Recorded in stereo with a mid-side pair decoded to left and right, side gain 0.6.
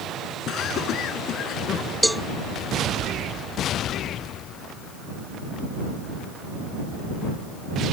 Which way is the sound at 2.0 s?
5° right.